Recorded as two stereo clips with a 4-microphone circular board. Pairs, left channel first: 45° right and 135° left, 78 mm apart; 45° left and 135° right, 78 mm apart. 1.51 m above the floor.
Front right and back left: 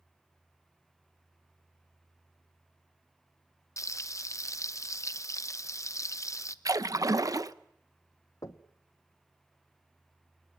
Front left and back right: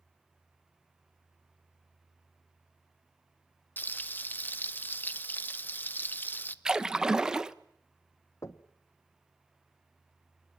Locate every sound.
3.8 s frying: 10° right, 0.8 m
6.7 s a splash: 145° left, 0.8 m
8.4 s knocking: 5° right, 1.2 m